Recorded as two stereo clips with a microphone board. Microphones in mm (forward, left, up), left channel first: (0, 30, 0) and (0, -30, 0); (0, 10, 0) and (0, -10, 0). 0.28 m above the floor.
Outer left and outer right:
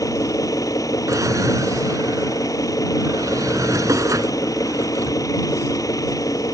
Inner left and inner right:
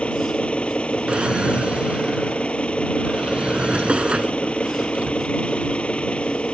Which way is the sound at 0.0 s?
75° left (ahead or behind).